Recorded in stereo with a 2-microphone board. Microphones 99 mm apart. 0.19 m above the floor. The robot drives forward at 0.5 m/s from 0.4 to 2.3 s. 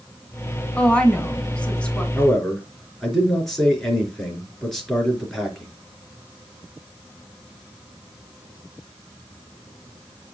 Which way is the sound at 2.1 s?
Centre (ahead or behind).